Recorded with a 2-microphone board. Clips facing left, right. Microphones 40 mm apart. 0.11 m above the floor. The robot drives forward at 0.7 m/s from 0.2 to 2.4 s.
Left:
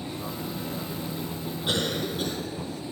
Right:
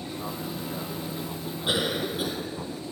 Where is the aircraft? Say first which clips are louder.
Even; 10° right (ahead or behind).